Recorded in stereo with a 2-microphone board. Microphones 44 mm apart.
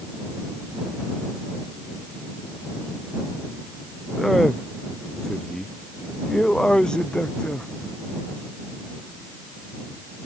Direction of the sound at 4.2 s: 5° left (ahead or behind).